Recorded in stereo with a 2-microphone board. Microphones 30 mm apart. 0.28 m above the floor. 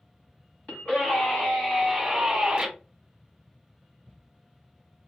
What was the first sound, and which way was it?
A scream, 50° left (ahead or behind).